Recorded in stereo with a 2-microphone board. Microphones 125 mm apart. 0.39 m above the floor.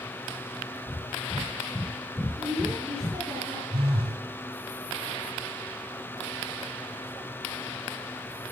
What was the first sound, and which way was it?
Breathing, 25° left (ahead or behind).